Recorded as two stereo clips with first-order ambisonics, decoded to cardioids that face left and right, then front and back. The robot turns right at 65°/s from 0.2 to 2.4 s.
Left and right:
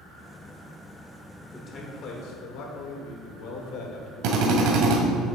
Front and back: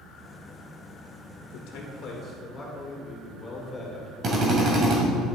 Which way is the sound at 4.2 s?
120° right.